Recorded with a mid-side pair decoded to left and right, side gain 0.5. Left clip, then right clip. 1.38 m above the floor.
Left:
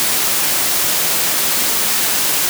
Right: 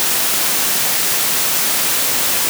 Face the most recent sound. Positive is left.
No sound to turn to.